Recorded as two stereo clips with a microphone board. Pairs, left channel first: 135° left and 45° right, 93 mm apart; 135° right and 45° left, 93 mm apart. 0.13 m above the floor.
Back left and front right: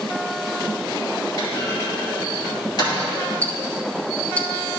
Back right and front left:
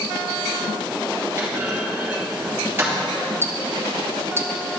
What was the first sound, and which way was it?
A clunk, 110° left.